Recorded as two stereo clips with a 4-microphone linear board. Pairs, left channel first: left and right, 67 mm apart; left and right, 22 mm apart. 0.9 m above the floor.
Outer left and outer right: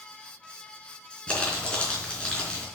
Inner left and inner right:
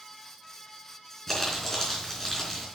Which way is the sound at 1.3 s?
20° left (ahead or behind).